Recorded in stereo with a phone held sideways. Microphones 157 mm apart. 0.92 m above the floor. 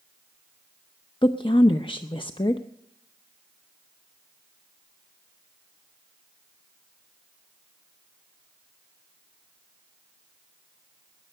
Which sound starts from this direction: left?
A woman speaking, at 1.2 s.